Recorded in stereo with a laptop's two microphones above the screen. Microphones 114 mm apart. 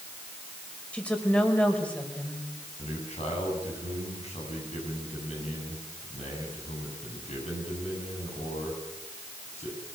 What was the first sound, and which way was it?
A woman speaking, 10° left (ahead or behind).